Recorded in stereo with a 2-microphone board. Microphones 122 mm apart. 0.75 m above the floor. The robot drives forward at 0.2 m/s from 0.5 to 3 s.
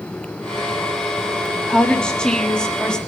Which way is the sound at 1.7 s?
10° left (ahead or behind).